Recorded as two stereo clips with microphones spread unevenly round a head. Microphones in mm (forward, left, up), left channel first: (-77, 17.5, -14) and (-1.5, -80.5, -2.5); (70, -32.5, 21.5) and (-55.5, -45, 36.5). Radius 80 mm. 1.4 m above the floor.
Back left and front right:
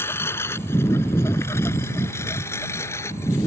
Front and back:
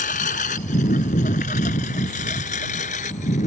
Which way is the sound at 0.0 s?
50° left.